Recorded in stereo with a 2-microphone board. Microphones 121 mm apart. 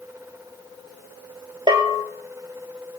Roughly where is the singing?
No singing in this recording.